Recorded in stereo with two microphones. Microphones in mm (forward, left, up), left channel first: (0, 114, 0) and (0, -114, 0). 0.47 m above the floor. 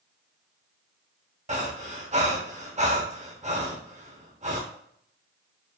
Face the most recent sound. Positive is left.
turn(degrees=-30)  # may be behind; listen again after turning